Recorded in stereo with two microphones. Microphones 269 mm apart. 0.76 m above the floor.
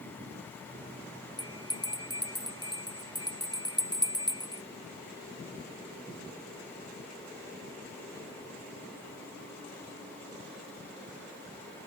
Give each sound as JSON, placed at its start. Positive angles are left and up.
{"t": 1.4, "sound": "a bell", "side_deg": 15}